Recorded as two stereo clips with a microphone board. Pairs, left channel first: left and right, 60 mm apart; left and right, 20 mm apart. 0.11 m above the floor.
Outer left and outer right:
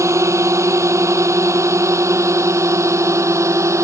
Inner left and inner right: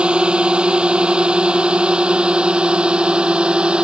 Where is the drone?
55° right (ahead or behind).